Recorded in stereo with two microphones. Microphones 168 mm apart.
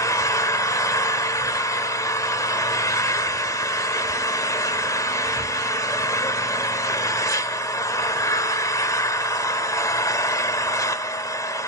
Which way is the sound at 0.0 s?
20° left (ahead or behind).